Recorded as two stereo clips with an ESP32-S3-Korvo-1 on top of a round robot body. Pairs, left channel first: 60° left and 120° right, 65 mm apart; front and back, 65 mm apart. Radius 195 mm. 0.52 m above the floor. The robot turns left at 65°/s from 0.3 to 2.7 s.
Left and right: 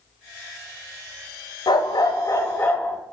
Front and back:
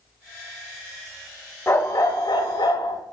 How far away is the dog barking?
About 1.0 m.